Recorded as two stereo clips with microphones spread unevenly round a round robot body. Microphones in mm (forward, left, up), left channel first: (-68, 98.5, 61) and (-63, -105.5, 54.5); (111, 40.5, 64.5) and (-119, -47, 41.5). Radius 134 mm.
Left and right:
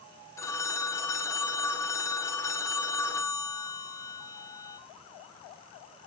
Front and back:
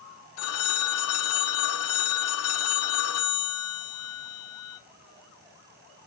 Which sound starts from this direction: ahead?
A phone ringing, at 0.4 s.